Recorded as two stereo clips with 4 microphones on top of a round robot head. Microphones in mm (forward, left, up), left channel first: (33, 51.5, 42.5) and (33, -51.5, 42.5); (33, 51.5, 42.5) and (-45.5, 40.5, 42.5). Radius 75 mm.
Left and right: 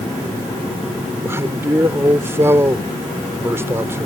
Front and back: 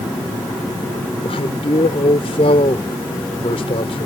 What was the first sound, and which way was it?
A man speaking, 25° right.